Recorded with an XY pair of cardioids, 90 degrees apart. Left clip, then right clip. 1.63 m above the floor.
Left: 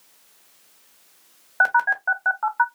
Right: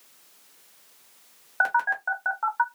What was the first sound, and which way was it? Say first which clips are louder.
A phone buzzing: left 5 dB; 20° left.